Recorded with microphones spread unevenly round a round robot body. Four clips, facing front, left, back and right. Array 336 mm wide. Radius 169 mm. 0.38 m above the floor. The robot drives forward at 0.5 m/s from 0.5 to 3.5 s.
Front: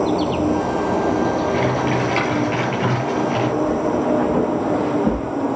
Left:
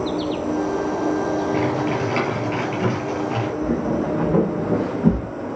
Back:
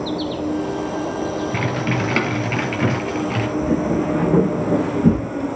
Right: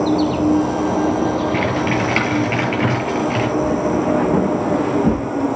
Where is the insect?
65° right, 2 m; by 5.6 s 110° right, 1.9 m.